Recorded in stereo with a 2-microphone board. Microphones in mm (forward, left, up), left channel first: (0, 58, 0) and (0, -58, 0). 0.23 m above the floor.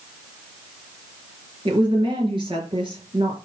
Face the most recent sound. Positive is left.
turn(degrees=-45)  # may be behind; listen again after turning